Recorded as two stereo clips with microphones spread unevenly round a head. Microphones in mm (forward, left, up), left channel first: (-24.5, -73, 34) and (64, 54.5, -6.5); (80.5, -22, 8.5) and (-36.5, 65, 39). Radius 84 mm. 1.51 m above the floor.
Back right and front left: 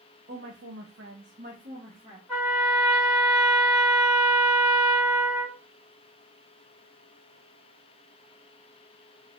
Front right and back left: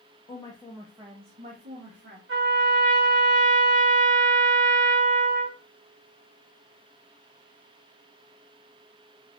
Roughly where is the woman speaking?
Ahead.